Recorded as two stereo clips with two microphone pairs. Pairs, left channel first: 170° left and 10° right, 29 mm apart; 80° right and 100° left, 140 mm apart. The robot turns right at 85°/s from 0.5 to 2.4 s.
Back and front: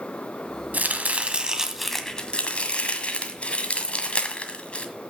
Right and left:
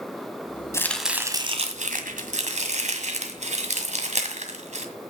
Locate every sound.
0.7 s chopping: 10° right, 1.7 m; by 4.9 s 130° left, 1.7 m